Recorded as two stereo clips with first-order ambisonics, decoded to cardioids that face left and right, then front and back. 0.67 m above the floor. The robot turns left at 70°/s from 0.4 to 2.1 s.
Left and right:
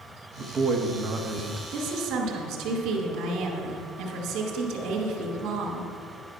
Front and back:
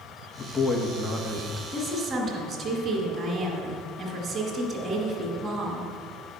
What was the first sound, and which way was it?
A man speaking, 60° right.